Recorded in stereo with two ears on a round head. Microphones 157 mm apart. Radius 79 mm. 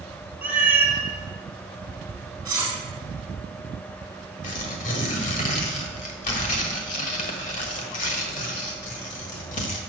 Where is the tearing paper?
45° left (ahead or behind), 1.5 m.